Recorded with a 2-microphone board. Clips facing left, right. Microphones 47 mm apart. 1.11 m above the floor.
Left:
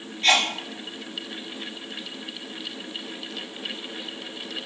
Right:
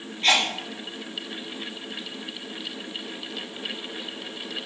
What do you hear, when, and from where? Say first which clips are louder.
0.2 s a sneeze: left 1 dB; 20° right (ahead or behind), 1.9 m